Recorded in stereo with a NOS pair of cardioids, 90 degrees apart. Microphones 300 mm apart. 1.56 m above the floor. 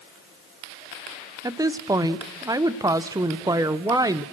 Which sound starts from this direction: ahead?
A woman speaking, at 1.4 s.